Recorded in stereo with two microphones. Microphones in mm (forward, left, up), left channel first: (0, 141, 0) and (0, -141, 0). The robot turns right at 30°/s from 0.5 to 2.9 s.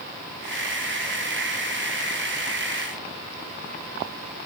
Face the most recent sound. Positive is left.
No sound to turn to.